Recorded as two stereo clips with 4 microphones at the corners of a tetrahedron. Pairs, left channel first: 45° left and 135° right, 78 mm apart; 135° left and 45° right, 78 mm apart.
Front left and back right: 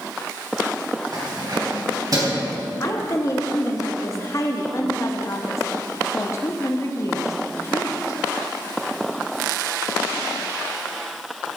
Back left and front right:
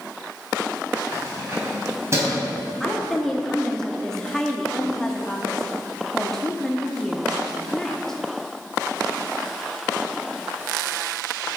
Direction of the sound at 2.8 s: 55° left.